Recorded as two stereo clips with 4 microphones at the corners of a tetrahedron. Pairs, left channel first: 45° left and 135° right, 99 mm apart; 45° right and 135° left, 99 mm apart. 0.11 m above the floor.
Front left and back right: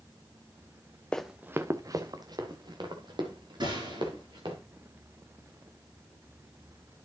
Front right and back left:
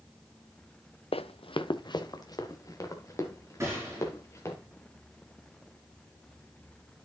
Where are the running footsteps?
35° right, 0.5 m; by 4.5 s 105° right, 3.5 m.